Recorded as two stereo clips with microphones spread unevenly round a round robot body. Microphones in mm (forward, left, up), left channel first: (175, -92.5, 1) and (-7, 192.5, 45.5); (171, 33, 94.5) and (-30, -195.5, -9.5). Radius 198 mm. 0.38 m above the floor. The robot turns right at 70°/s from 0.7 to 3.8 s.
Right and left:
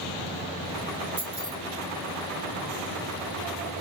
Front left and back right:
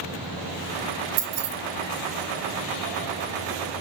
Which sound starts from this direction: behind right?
Keys jangling, at 1.2 s.